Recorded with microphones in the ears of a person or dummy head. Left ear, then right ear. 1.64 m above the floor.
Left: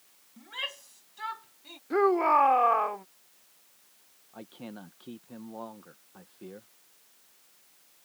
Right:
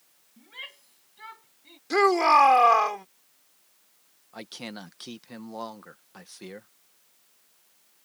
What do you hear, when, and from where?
0.4 s a shout: 20° left (ahead or behind)
1.9 s a shout: 75° right (ahead or behind)
4.3 s a man speaking: 70° right (ahead or behind)